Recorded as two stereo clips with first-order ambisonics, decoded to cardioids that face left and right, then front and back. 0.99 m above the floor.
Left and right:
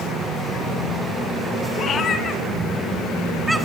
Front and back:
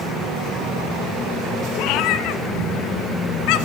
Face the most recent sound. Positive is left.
turn(degrees=-5)